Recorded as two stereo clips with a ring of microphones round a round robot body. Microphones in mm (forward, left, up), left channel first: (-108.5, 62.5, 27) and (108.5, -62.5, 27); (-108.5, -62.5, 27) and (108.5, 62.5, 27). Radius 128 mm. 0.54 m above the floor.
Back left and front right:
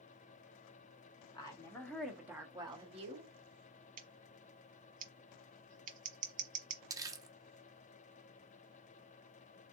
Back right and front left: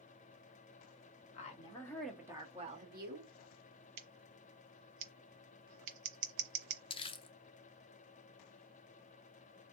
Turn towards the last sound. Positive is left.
turn(degrees=-95)